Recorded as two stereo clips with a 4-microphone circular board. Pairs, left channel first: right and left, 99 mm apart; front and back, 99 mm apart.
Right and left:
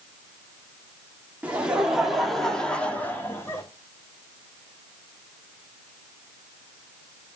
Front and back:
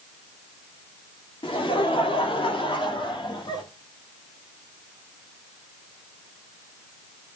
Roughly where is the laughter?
Ahead.